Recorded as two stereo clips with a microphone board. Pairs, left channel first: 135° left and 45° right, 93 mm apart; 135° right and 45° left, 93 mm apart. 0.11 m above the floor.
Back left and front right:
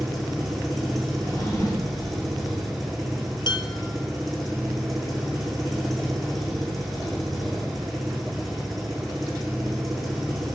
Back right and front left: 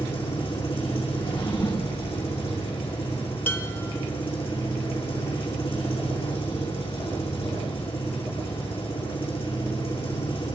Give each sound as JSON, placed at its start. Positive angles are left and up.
{"t": 0.0, "sound": "an engine running", "azimuth_deg": -135, "distance_m": 6.0}
{"t": 1.2, "sound": "a drawer", "azimuth_deg": -170, "distance_m": 6.0}
{"t": 3.5, "sound": "dishes clattering", "azimuth_deg": 160, "distance_m": 1.9}